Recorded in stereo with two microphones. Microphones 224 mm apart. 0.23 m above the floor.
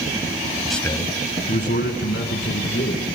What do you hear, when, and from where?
0.7 s a man speaking: 5° right (ahead or behind), 0.9 m; by 3.0 s 70° left (ahead or behind), 3.5 m